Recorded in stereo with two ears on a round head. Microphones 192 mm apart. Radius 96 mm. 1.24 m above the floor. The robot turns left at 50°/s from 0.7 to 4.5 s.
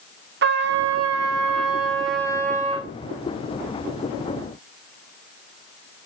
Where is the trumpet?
55° right, 1.4 m; by 2.9 s 165° right, 1.4 m.